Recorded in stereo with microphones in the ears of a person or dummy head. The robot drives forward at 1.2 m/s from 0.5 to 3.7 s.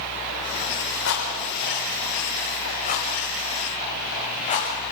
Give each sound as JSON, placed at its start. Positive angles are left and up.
{"t": 1.1, "sound": "a rattle", "side_deg": 65, "distance_m": 4.0}